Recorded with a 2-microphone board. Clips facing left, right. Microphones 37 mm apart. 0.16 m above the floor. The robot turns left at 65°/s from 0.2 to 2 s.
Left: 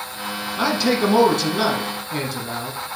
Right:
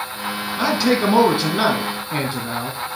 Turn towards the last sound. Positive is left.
turn(degrees=-30)  # may be behind; listen again after turning